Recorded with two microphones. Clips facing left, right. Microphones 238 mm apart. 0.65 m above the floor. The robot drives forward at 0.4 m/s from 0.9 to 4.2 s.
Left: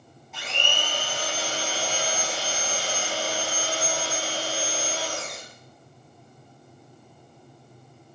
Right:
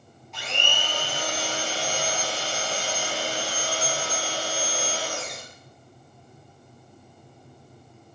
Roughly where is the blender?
Centre.